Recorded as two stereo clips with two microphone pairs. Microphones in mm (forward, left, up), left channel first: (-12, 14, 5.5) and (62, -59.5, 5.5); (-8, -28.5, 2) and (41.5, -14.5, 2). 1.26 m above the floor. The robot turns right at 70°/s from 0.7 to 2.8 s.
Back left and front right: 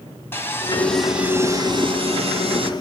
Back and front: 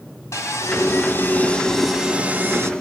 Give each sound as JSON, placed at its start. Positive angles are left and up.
{"t": 0.3, "sound": "sawing", "azimuth_deg": -155, "distance_m": 3.0}